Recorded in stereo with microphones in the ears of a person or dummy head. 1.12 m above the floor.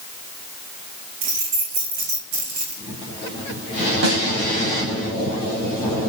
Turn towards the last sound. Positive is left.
turn(degrees=-80)